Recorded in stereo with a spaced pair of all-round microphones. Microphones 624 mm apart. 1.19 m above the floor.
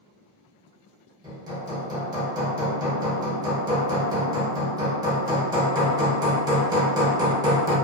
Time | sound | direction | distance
1.2 | hammering | 5° right (ahead or behind) | 0.8 m